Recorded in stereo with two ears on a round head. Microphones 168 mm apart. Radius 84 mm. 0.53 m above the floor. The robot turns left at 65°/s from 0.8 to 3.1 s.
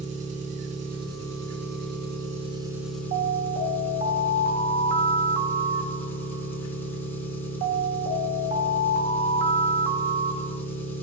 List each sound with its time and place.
0.0 s an engine running: 40° right, 2.5 m; by 11.0 s 170° left, 2.5 m
3.1 s an alarm: 40° right (ahead or behind), 1.3 m